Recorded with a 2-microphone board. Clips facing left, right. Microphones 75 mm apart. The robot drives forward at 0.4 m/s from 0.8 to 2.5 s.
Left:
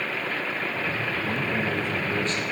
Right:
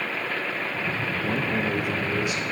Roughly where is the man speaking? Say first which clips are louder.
Right 3 dB; right.